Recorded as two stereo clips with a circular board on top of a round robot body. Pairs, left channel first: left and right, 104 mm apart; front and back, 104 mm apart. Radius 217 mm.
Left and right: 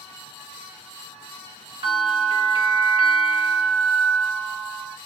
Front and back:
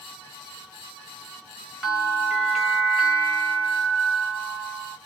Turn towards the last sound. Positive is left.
turn(degrees=-90)